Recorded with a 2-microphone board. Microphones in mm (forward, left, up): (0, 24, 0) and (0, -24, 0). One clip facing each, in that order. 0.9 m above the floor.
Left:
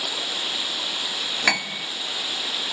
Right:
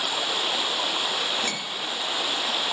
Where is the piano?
85° left.